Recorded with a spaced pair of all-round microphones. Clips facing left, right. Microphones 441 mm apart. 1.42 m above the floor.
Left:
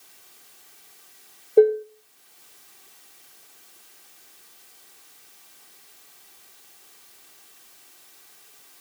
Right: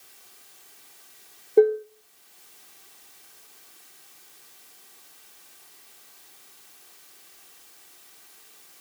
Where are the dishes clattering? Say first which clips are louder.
Left 2 dB; 20° right (ahead or behind), 0.5 m.